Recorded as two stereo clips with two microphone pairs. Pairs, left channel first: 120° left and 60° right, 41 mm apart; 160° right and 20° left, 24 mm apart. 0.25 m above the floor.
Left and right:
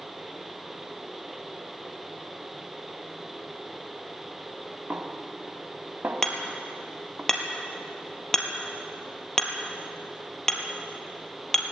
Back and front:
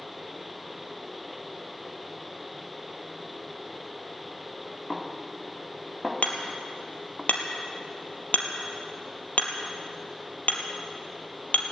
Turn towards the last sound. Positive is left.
turn(degrees=-155)